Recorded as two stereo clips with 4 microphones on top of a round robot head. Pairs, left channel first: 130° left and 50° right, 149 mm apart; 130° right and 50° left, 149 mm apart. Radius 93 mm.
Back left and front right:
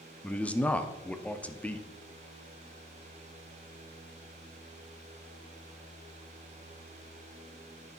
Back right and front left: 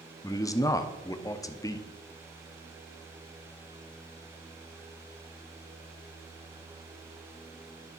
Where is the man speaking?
160° right, 0.8 m.